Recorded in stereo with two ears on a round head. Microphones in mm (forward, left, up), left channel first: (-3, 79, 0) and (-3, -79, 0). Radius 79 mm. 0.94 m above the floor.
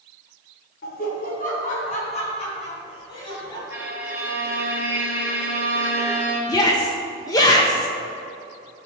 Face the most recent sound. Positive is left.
turn(degrees=20)  # may be behind; listen again after turning